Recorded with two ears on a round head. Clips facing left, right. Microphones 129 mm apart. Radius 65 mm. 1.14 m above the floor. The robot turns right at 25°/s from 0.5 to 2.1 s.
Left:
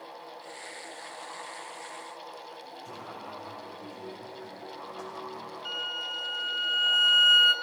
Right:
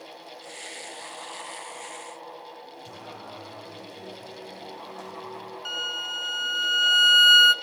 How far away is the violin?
About 0.6 m.